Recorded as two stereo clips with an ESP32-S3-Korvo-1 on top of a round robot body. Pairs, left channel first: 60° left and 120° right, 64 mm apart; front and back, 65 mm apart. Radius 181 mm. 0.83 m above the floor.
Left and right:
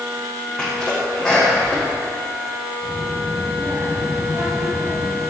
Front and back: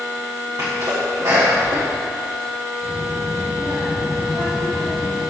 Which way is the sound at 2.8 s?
160° right.